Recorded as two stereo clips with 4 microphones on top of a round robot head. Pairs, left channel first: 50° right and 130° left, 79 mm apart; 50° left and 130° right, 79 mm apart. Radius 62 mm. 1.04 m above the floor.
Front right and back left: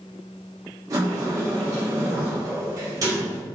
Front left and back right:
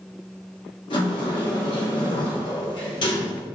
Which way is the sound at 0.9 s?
80° left.